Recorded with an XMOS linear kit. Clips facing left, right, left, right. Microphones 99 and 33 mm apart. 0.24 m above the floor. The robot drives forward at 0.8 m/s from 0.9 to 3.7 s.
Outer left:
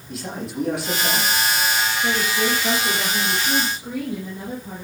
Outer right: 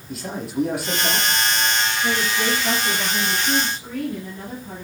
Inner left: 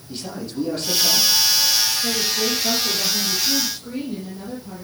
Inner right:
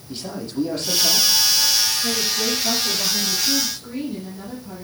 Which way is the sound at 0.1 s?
Centre (ahead or behind).